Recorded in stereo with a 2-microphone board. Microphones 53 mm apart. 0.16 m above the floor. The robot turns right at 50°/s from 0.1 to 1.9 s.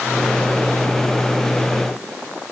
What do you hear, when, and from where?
Only background noise.